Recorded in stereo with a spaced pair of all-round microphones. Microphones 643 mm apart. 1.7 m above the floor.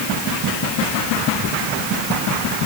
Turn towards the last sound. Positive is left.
No sound to turn to.